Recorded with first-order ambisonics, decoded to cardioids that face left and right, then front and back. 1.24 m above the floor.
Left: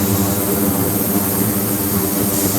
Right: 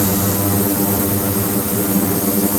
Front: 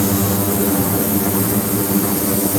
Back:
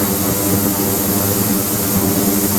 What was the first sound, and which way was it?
Only background noise.